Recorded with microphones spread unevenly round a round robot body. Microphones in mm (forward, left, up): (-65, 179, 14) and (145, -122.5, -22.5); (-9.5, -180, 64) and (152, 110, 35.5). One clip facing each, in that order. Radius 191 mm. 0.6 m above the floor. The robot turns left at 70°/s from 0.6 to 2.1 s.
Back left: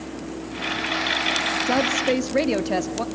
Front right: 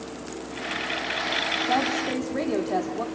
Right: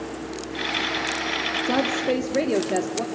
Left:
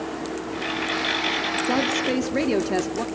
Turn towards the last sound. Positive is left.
turn(degrees=120)